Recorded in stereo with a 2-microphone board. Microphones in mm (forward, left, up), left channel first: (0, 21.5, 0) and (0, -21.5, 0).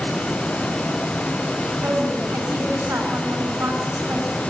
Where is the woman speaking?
70° right (ahead or behind), 6.5 m.